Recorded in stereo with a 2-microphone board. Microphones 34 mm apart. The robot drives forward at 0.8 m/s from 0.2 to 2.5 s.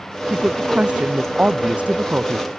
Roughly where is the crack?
No crack in this recording.